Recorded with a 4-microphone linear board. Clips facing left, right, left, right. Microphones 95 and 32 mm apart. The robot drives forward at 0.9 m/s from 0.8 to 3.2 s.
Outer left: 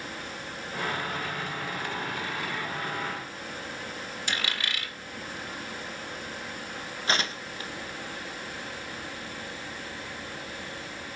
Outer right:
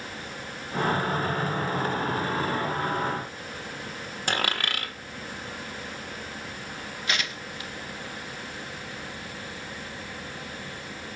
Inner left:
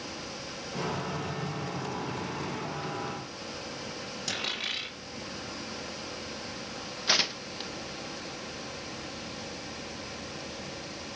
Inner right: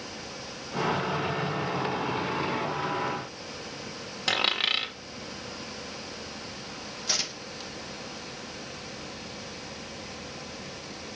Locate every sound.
4.3 s a dropped coin: 50° right (ahead or behind), 1.5 m
7.1 s tearing paper: 35° left (ahead or behind), 0.6 m